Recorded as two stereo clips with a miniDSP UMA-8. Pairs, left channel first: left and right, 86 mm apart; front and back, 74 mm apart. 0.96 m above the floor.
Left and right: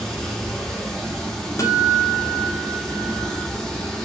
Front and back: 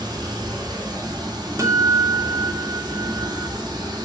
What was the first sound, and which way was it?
Running water, 175° left.